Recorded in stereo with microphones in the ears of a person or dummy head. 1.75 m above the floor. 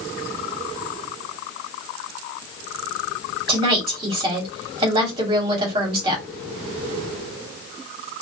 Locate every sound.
3.5 s a woman speaking: 25° right (ahead or behind), 1.2 m